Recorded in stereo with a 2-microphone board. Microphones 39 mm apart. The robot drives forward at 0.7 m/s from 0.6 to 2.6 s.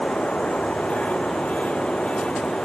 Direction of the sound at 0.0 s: 30° left (ahead or behind).